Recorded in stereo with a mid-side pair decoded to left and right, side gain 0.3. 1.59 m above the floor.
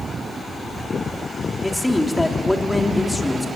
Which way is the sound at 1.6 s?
15° left.